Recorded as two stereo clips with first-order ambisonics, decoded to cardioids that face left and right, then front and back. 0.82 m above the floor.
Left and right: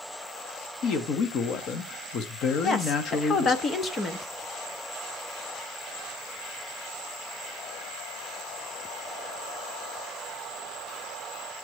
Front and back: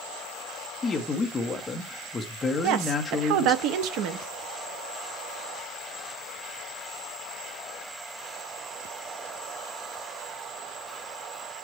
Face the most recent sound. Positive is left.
turn(degrees=160)